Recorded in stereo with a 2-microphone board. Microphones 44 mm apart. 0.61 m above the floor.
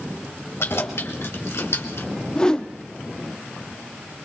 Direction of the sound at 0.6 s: 70° left (ahead or behind).